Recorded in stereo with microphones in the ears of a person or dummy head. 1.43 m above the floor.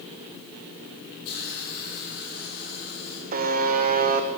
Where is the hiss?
55° left (ahead or behind), 6.5 m.